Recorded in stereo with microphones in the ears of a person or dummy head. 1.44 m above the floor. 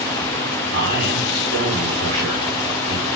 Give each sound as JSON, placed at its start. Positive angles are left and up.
{"t": 0.7, "sound": "a man speaking", "side_deg": -85, "distance_m": 5.0}